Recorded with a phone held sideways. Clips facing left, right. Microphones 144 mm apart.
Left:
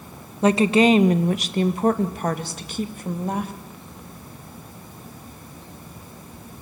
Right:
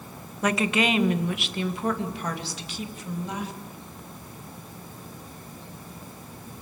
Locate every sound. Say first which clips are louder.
0.4 s a woman speaking: left 8 dB; 25° left (ahead or behind), 1.2 m; by 3.5 s 50° left (ahead or behind), 3 m